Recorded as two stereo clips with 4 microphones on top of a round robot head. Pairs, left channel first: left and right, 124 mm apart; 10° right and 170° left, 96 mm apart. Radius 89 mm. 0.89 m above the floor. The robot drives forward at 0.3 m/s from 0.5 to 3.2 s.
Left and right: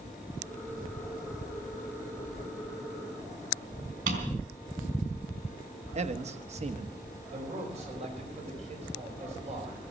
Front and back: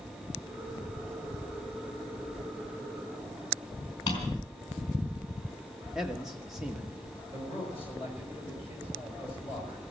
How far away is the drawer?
About 3.5 m.